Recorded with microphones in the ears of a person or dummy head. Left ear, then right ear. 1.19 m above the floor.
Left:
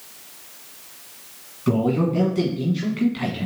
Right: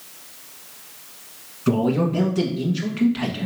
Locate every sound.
1.7 s a man speaking: 10° right (ahead or behind), 1.4 m